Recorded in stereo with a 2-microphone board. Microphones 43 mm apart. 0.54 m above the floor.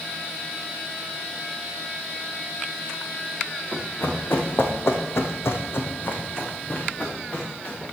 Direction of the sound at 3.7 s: 45° left (ahead or behind).